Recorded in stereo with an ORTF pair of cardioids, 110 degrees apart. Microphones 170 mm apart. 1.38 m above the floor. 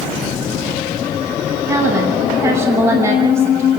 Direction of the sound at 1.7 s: 15° right.